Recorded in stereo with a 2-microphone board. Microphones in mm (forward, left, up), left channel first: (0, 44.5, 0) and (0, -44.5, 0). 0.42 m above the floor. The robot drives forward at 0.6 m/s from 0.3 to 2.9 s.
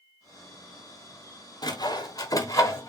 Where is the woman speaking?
No woman speaking in this recording.